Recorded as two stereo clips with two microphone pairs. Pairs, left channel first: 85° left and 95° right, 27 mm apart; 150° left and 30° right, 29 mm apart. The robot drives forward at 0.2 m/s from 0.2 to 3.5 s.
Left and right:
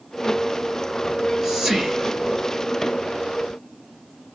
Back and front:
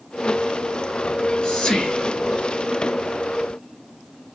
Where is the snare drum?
I don't hear a snare drum.